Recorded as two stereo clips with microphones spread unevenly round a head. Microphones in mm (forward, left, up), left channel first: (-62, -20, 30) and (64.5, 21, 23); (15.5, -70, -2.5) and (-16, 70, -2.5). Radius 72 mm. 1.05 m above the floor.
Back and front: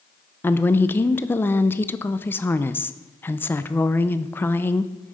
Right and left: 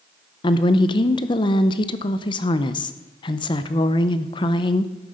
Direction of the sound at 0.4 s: 95° right.